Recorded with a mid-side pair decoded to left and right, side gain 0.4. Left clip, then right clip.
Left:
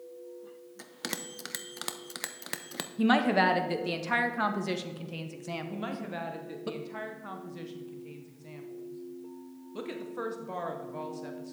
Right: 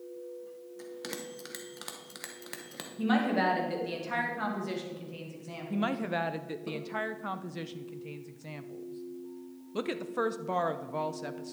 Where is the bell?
50° left, 1.0 m.